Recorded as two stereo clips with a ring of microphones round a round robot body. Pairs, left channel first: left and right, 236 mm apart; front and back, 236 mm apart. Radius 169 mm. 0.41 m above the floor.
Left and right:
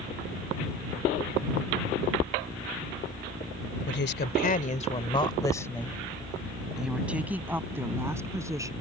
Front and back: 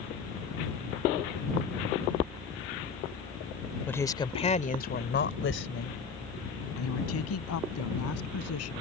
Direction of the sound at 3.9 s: 80° left.